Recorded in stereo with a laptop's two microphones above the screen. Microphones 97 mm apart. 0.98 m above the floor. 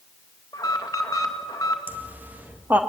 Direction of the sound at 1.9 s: 20° right (ahead or behind).